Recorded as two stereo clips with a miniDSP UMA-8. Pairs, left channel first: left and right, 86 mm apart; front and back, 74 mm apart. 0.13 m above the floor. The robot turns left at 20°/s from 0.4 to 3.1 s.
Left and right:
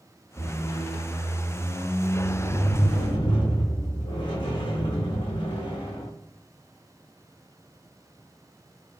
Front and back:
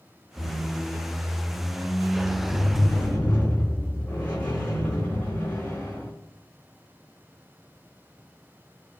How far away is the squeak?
About 0.6 m.